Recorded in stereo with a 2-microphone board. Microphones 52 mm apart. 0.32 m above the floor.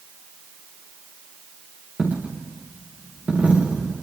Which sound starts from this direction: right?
A dropped coin, at 2.0 s.